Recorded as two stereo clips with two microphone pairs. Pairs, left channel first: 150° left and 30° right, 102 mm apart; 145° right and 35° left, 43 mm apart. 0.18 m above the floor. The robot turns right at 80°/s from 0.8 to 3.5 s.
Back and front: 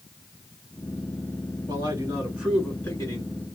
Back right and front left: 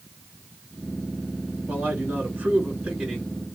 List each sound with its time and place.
1.7 s a man speaking: 10° right, 1.9 m; by 3.3 s 125° left, 1.9 m